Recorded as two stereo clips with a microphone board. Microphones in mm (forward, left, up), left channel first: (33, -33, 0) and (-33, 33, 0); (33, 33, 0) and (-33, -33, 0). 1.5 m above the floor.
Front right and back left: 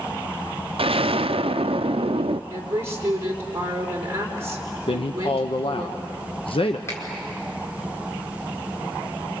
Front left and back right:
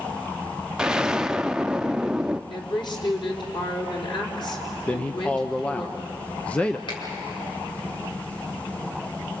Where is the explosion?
145° left, 0.5 m.